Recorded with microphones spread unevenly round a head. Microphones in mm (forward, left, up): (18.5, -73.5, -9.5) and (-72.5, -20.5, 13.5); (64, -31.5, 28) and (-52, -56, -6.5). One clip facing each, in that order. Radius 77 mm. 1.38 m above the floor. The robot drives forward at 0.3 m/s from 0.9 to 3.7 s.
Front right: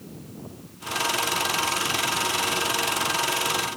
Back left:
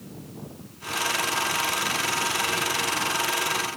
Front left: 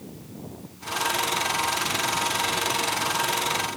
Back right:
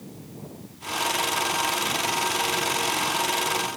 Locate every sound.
Only background noise.